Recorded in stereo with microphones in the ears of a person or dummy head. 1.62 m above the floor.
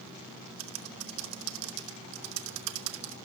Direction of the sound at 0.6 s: 75° right (ahead or behind).